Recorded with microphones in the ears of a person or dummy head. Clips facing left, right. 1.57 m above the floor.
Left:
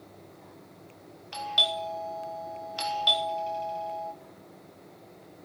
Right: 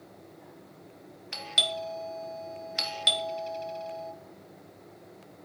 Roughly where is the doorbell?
Right.